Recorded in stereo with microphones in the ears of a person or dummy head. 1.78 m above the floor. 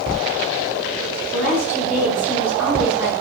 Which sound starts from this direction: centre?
A woman speaking, at 1.3 s.